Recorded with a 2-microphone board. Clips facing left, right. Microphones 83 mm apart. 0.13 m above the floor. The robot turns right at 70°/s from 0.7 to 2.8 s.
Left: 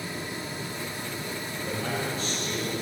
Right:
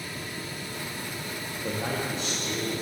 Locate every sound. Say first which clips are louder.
1.6 s a man speaking: right 1 dB; 60° right, 5.5 m; by 2.7 s 15° left, 5.5 m